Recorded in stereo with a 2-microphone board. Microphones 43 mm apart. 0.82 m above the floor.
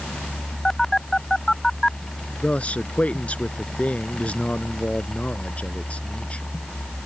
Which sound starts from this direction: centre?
A phone buzzing, at 0.7 s.